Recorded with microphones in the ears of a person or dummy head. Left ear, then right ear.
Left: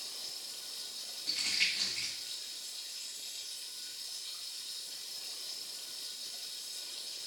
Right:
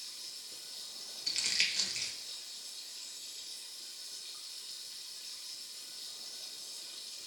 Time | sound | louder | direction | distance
0.0 | running water | left 3 dB | 5° left (ahead or behind) | 0.9 m
1.3 | crumpling | even | 75° right (ahead or behind) | 0.9 m